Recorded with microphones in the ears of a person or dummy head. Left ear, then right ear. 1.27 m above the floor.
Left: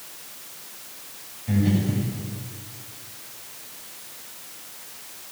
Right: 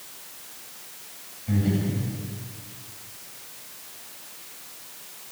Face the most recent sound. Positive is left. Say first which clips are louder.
# left 2 dB
turn(degrees=-10)  # may be behind; listen again after turning